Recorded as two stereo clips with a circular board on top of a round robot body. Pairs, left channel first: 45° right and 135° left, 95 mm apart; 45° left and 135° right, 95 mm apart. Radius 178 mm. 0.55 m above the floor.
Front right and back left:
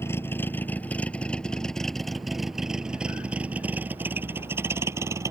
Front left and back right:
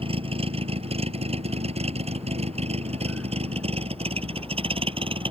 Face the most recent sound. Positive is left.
turn(degrees=-165)